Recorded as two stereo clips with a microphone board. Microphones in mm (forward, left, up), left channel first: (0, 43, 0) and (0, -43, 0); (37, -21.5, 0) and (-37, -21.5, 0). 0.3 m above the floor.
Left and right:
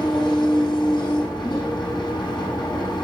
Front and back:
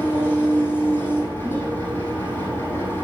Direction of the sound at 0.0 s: 60° left.